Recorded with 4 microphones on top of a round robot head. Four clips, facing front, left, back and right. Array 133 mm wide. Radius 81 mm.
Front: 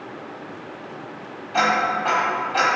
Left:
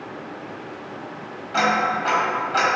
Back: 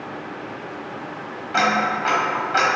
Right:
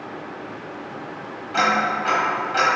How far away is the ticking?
About 1.3 m.